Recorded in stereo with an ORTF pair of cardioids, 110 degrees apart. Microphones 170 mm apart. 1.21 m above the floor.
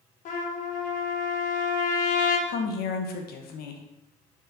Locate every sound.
0.2 s a trumpet: 50° left, 0.9 m
2.5 s a woman speaking: 65° left, 0.9 m